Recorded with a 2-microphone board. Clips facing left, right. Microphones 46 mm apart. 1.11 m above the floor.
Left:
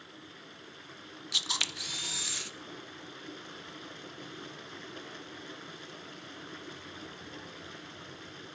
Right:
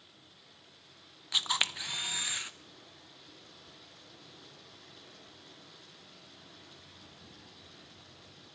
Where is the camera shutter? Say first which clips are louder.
Right 2 dB; 20° right (ahead or behind), 1.0 m.